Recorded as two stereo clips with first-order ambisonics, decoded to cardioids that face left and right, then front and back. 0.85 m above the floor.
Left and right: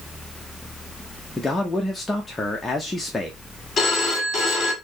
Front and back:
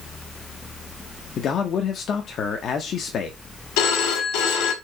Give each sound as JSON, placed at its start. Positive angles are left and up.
{"t": 1.4, "sound": "a man speaking", "azimuth_deg": 15, "distance_m": 0.7}
{"t": 3.8, "sound": "a phone ringing", "azimuth_deg": 20, "distance_m": 1.6}